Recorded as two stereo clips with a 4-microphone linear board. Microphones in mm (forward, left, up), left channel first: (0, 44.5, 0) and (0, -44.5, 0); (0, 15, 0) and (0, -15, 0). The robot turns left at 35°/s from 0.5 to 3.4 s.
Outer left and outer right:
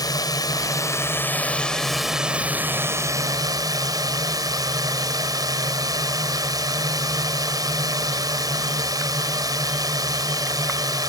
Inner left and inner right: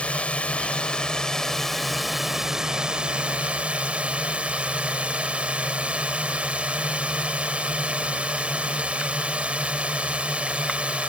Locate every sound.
0.0 s a drone: 50° left; by 11.1 s 50° right